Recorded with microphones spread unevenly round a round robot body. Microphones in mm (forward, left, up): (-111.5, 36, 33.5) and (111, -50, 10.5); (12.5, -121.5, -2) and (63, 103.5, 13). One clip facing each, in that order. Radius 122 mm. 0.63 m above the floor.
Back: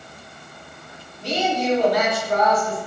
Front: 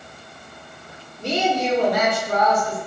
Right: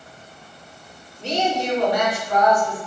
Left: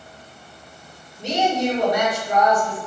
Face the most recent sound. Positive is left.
turn(degrees=25)